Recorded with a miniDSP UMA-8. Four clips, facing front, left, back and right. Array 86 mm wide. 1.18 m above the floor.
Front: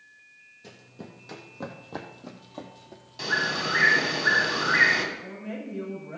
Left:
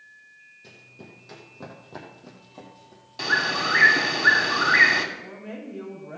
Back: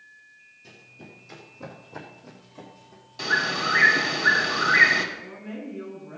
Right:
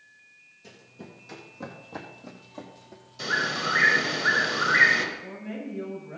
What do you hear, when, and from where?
0.6 s running footsteps: 15° left, 3 m; by 3.6 s 15° right, 2 m
3.2 s a bird: 90° left, 2.5 m
5.2 s a woman speaking: 50° left, 6 m